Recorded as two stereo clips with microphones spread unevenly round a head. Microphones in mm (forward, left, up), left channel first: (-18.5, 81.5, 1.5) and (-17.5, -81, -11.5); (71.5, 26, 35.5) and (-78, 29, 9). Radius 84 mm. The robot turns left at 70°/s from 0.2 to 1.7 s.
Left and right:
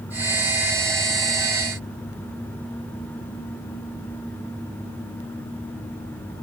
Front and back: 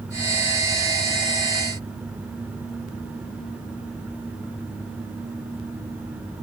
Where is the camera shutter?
No camera shutter in this recording.